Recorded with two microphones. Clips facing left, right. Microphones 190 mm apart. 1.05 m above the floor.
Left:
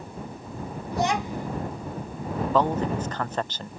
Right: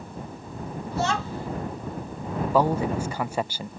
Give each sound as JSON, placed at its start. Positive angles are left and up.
{"t": 0.9, "sound": "a child speaking", "side_deg": 15}
{"t": 2.5, "sound": "a man speaking", "side_deg": -10}